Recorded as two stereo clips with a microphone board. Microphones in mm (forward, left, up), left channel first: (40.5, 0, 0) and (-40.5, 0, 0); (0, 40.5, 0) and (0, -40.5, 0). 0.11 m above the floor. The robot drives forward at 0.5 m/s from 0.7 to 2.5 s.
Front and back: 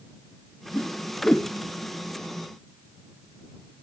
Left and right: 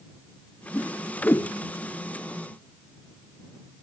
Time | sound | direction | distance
0.7 | a whoosh | 50° left | ?